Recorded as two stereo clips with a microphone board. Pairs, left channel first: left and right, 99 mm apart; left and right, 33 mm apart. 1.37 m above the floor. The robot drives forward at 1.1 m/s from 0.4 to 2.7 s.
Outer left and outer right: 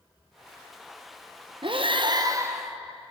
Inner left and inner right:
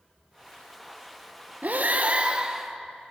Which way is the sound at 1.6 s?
55° right (ahead or behind).